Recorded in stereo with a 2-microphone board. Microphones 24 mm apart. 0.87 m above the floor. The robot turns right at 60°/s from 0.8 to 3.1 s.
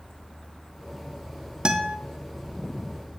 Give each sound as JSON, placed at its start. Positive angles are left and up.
{"t": 1.6, "sound": "a guitar", "side_deg": -35, "distance_m": 0.6}